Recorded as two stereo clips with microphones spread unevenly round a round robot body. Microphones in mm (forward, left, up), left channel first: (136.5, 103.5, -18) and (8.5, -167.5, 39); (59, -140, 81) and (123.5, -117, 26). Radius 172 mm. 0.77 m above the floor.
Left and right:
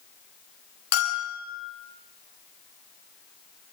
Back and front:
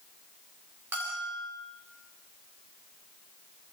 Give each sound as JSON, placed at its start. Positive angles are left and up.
{"t": 0.9, "sound": "a bell", "azimuth_deg": 85, "distance_m": 9.0}